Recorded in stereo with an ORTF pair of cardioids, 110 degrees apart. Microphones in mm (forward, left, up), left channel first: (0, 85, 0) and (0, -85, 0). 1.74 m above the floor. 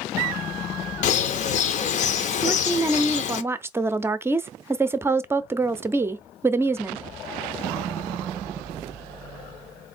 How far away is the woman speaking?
About 0.6 m.